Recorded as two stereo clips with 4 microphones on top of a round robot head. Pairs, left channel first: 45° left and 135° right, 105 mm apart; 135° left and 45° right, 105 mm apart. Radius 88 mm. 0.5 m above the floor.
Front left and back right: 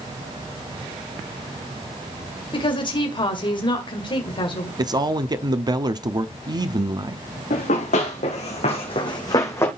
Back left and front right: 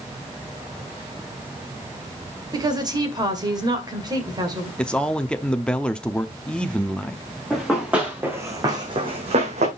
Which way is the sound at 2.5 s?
5° left.